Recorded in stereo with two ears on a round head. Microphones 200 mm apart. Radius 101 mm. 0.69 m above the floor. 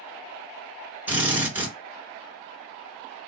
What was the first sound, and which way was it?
A drill, 10° right (ahead or behind).